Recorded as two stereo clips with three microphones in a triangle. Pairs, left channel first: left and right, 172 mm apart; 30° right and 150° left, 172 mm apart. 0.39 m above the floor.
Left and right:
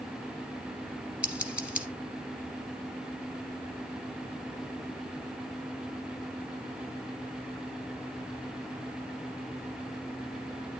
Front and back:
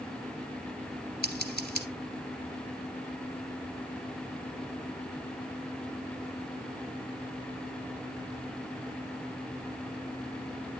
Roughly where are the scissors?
Ahead.